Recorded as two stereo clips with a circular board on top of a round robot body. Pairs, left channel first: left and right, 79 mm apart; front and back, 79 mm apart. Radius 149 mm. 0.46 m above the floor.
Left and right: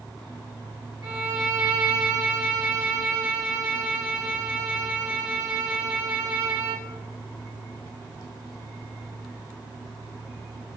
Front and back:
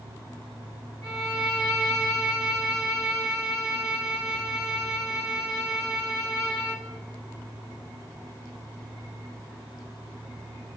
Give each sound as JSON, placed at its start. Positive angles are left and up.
{"t": 1.0, "sound": "a violin", "azimuth_deg": -50, "distance_m": 5.0}